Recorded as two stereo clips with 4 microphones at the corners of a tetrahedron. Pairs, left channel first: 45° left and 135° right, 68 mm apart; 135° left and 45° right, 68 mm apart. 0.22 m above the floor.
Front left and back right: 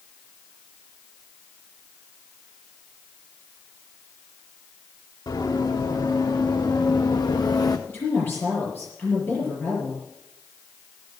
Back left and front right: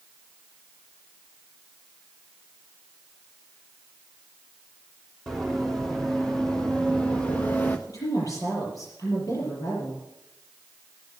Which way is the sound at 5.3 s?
50° left.